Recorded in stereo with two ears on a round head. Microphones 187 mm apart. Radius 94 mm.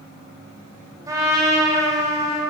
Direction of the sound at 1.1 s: 15° right (ahead or behind).